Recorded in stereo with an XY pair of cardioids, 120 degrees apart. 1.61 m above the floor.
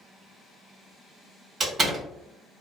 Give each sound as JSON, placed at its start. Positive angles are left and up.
{"t": 1.6, "sound": "a door slam", "azimuth_deg": -40, "distance_m": 1.2}